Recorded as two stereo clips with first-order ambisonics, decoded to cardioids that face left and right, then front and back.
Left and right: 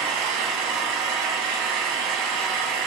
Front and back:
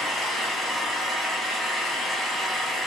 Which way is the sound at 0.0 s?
100° right.